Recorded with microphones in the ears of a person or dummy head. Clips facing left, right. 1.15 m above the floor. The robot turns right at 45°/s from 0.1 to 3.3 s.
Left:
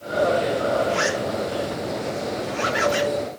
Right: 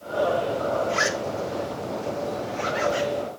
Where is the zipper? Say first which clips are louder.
Left 3 dB; 65° right (ahead or behind), 4.5 m; by 3.1 s 30° left (ahead or behind), 4.5 m.